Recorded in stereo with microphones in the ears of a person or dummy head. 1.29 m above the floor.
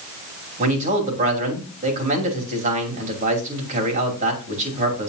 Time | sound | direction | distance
0.6 | a man speaking | 40° right (ahead or behind) | 3 m